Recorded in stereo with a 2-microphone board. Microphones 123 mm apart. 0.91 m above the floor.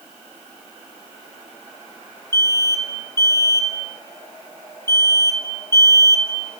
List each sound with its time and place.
2.3 s an alarm: 20° left (ahead or behind), 1.1 m